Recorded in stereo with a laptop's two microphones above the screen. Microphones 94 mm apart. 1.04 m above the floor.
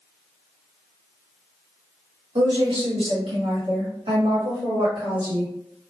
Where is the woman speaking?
75° right (ahead or behind), 1.9 m; by 5.5 s 45° right (ahead or behind), 1.7 m.